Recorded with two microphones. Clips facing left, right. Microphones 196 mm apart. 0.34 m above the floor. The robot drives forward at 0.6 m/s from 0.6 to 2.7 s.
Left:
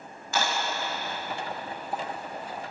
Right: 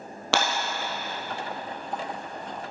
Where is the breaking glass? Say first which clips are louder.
Right 3 dB; 85° right, 2 m.